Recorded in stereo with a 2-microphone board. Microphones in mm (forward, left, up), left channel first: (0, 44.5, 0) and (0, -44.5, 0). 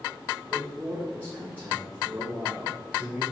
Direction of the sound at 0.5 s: 20° right (ahead or behind).